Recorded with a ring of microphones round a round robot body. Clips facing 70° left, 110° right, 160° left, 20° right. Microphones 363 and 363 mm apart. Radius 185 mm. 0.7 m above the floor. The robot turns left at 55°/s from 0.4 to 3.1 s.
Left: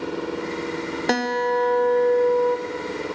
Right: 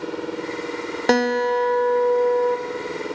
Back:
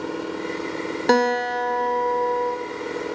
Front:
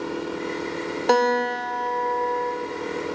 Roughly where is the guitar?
Behind right.